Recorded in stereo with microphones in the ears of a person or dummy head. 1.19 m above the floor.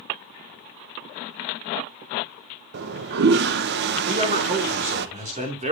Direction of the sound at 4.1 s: 30° right (ahead or behind).